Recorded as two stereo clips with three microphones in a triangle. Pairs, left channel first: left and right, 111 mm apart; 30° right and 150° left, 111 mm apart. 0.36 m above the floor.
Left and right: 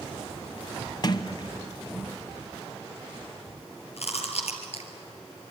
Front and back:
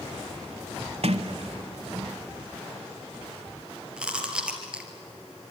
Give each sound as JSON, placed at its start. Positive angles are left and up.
{"t": 1.0, "sound": "a sliding door", "azimuth_deg": 135, "distance_m": 1.0}
{"t": 4.0, "sound": "chewing", "azimuth_deg": 70, "distance_m": 3.0}